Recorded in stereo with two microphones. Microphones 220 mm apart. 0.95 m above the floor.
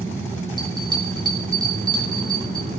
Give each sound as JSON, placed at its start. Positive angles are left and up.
{"t": 0.6, "sound": "a bell", "side_deg": -20, "distance_m": 3.0}